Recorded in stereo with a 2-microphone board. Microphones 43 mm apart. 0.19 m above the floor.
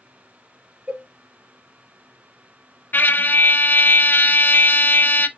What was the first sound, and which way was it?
A cowbell, 35° right (ahead or behind).